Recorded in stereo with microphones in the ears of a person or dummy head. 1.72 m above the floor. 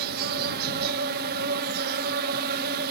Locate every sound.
0.0 s an insect: 55° right (ahead or behind)